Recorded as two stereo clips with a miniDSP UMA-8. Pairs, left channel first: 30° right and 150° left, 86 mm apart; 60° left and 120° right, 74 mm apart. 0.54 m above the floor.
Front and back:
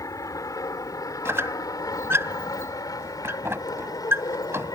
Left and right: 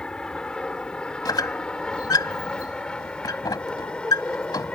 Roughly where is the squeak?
Left.